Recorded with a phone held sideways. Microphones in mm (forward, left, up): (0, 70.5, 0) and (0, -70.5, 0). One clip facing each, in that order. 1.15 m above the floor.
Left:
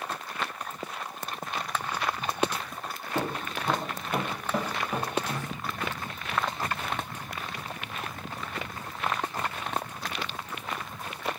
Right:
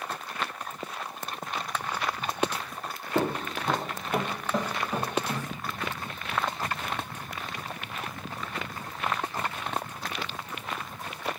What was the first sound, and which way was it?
Footsteps, 25° right (ahead or behind).